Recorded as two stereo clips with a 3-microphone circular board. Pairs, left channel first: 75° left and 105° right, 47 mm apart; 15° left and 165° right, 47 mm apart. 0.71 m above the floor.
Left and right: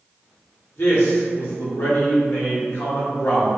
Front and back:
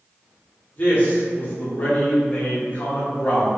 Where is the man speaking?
60° left, 1.0 m.